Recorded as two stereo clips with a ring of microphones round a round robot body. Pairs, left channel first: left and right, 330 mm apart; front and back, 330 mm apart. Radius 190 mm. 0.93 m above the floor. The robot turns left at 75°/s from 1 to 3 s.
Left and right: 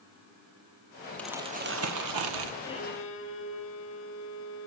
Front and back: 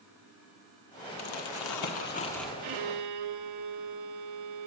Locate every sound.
1.2 s crumpling: 5° left, 1.3 m; by 2.5 s 95° right, 1.3 m
2.6 s a violin: 175° left, 1.1 m; by 4.7 s 145° left, 1.1 m